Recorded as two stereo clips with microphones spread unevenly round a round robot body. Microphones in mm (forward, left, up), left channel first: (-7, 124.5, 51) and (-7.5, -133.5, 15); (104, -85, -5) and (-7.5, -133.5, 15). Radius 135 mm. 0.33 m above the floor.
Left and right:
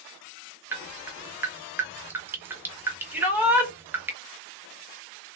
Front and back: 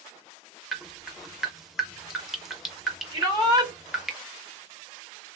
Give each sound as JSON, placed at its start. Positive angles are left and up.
{"t": 0.7, "sound": "dripping", "azimuth_deg": -45, "distance_m": 0.6}
{"t": 3.1, "sound": "a shout", "azimuth_deg": -145, "distance_m": 1.3}